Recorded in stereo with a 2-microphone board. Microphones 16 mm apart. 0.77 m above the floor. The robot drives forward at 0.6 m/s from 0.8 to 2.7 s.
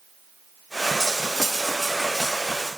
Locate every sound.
1.0 s cutlery clinking: 30° left (ahead or behind), 1.0 m; by 2.7 s 15° left (ahead or behind), 2.0 m